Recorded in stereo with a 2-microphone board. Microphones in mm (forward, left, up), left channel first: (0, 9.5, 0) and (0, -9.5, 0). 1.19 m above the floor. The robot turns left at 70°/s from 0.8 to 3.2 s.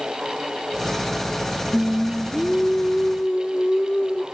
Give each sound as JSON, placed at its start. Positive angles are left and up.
{"t": 1.7, "sound": "singing", "azimuth_deg": -150, "distance_m": 1.7}